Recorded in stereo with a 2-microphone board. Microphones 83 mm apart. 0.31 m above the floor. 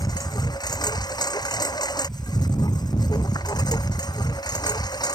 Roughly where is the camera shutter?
No camera shutter in this recording.